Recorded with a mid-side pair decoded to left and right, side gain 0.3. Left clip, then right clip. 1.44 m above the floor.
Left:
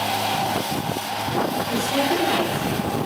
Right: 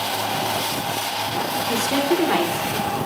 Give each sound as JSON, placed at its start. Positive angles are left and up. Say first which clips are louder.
{"t": 1.7, "sound": "a woman speaking", "louder": "right 3 dB", "azimuth_deg": -70, "distance_m": 4.5}